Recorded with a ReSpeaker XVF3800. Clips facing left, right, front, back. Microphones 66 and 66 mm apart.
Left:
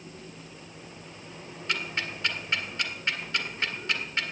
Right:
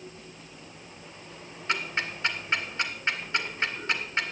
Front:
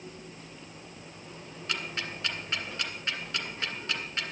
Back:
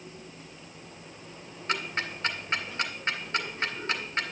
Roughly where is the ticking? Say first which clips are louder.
Right 2 dB, back 4 dB; behind right.